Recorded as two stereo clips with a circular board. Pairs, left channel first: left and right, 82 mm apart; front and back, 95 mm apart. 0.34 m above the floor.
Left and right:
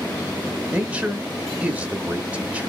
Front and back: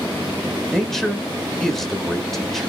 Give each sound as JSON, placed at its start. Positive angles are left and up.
{"t": 0.7, "sound": "a man speaking", "azimuth_deg": -80, "distance_m": 0.8}